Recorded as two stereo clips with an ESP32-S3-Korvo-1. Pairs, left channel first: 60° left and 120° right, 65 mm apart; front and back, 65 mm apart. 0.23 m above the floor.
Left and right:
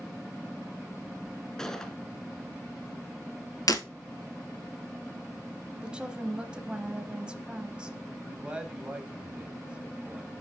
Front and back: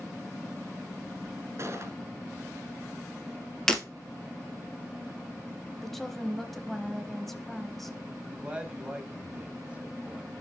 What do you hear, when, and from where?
1.6 s a gunshot: 140° left, 0.9 m
3.7 s breaking glass: 80° left, 1.3 m
5.8 s a woman speaking: 85° right, 0.9 m
8.2 s a man speaking: 155° right, 1.1 m